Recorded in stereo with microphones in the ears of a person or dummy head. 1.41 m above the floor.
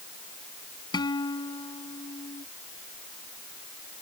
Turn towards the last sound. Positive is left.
turn(degrees=20)  # may be behind; listen again after turning